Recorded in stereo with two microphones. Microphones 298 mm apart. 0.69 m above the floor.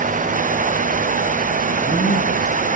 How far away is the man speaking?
About 9 m.